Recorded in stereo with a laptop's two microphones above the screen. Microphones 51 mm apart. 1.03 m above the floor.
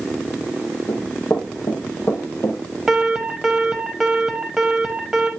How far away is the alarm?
About 1.0 m.